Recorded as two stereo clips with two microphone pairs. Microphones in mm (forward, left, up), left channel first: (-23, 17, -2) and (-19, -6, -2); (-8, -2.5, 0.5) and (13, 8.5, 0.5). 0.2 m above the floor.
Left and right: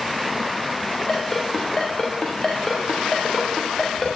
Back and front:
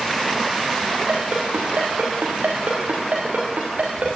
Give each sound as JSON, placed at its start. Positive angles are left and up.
{"t": 1.1, "sound": "a ringtone", "azimuth_deg": 40, "distance_m": 8.0}